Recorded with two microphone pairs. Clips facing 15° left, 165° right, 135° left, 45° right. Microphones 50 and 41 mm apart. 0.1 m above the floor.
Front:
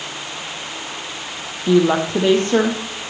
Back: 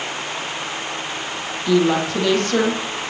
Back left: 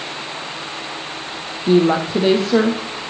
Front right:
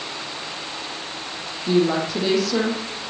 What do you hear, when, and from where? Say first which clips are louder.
1.7 s a woman speaking: front 2 dB, back left 5 dB; 75° left, 3.5 m